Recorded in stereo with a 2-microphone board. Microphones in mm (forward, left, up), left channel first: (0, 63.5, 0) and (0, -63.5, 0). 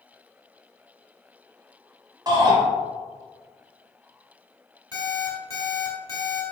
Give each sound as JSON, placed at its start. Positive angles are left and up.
{"t": 2.3, "sound": "a shout", "side_deg": -35, "distance_m": 1.5}
{"t": 4.9, "sound": "an alarm clock", "side_deg": 30, "distance_m": 1.2}